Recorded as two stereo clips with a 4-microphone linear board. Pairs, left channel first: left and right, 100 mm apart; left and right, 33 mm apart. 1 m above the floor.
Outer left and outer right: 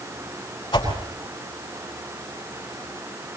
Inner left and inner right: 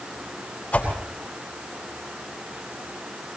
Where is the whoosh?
45° left (ahead or behind), 8.5 m.